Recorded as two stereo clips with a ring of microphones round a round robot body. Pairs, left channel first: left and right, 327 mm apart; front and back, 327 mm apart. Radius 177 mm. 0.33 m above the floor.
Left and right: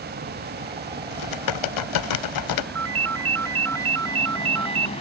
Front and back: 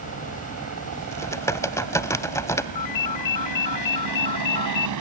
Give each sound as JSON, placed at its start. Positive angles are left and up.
{"t": 0.0, "sound": "a helicopter", "azimuth_deg": -150}
{"t": 1.1, "sound": "typing on a keyboard", "azimuth_deg": 80}
{"t": 2.8, "sound": "a ringtone", "azimuth_deg": -40}